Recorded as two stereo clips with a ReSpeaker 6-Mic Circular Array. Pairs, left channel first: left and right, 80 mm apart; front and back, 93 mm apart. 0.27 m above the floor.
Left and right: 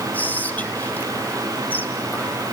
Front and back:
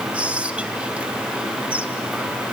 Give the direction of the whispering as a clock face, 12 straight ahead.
8 o'clock.